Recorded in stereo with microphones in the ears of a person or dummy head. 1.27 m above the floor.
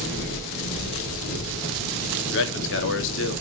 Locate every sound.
0.0 s an engine running: 50° left (ahead or behind), 2.5 m
2.3 s a man speaking: 60° left (ahead or behind), 0.6 m